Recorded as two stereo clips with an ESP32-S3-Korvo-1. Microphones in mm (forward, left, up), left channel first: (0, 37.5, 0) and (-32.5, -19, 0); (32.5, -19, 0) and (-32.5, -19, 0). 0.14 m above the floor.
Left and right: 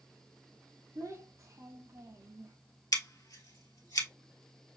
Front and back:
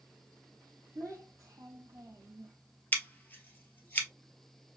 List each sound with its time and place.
0.9 s a child speaking: 150° right, 2.5 m
2.9 s scissors: 55° left, 1.3 m